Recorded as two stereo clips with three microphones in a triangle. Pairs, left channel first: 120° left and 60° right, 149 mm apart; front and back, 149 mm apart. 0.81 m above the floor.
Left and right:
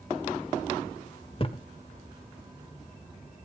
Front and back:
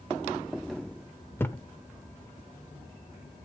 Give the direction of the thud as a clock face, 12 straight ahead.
9 o'clock.